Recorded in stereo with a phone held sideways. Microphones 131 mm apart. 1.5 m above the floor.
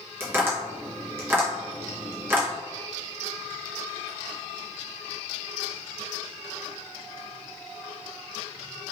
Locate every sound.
0.2 s tapping: 20° right (ahead or behind), 0.8 m